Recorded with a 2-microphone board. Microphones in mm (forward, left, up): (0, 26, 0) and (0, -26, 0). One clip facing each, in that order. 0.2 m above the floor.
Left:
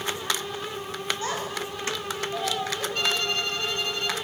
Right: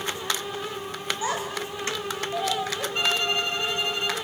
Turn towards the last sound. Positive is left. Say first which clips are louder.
# right 3 dB
turn(degrees=-20)  # may be behind; listen again after turning